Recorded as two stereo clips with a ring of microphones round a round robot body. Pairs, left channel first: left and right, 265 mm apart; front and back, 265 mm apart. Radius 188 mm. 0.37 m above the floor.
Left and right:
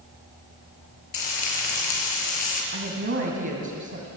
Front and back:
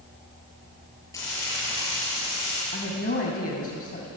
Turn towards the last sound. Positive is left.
turn(degrees=-55)